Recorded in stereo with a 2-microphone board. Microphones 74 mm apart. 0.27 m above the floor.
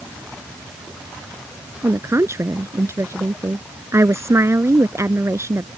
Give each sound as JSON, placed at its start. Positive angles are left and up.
{"t": 1.8, "sound": "a woman speaking", "side_deg": -40}